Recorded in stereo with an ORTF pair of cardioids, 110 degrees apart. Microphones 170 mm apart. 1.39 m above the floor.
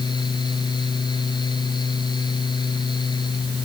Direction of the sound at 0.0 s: 25° left.